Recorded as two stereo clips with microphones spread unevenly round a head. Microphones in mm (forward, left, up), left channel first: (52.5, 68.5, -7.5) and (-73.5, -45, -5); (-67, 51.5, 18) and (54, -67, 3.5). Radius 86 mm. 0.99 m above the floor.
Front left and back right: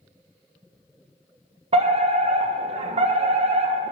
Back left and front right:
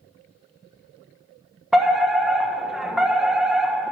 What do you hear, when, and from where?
1.7 s a fire alarm: 120° right, 1.2 m